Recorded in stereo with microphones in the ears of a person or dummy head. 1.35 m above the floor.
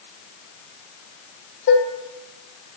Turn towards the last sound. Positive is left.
turn(degrees=65)  # may be behind; listen again after turning